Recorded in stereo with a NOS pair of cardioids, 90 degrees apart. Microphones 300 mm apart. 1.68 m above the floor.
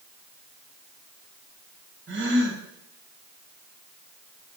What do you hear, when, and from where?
2.1 s a gasp: 40° right, 3 m